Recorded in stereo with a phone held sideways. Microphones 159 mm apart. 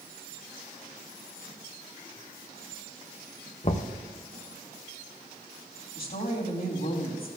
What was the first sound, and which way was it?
Knocking, 45° left (ahead or behind).